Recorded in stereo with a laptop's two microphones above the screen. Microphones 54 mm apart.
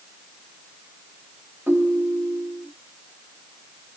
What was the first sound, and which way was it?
A ringtone, 35° right (ahead or behind).